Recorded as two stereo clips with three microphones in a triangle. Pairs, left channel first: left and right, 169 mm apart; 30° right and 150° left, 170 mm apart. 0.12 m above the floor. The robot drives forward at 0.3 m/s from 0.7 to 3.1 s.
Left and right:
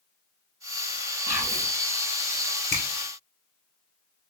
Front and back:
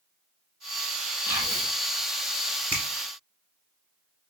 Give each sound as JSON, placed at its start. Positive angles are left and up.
{"t": 1.3, "sound": "whispering", "azimuth_deg": -145, "distance_m": 1.3}
{"t": 2.7, "sound": "a finger snap", "azimuth_deg": -135, "distance_m": 1.4}